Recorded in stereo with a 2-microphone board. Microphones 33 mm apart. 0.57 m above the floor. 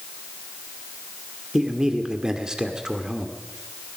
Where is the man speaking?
20° right (ahead or behind), 1.9 m.